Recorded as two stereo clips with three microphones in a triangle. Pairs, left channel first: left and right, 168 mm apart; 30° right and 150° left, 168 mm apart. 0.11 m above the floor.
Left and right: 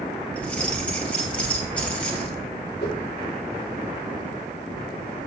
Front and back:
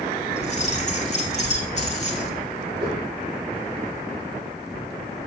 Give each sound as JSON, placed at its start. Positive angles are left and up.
{"t": 0.4, "sound": "keys jangling", "azimuth_deg": 10, "distance_m": 1.9}
{"t": 2.8, "sound": "a whoosh", "azimuth_deg": 85, "distance_m": 4.0}